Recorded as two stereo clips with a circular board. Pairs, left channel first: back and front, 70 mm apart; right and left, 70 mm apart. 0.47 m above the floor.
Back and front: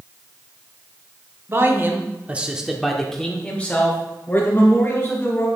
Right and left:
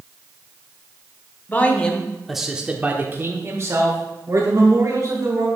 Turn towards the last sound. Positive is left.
turn(degrees=120)